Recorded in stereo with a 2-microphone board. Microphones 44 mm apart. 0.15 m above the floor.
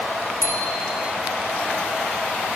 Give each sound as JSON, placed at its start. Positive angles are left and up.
{"t": 0.4, "sound": "a bicycle bell", "side_deg": 70, "distance_m": 8.5}